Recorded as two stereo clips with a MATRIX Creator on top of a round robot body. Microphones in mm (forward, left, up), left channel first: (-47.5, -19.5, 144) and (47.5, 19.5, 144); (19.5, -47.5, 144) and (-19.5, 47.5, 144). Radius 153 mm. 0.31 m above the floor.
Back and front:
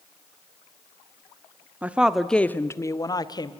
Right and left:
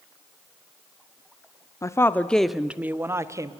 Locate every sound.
1.8 s a woman speaking: 40° right, 1.2 m; by 3.5 s 165° left, 1.7 m